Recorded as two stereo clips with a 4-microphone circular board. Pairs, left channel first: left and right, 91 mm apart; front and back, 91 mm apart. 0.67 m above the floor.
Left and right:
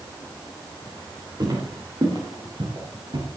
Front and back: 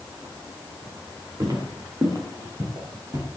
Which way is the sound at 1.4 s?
135° right.